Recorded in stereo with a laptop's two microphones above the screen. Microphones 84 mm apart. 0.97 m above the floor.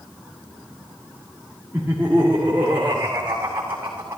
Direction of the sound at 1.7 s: 20° right (ahead or behind).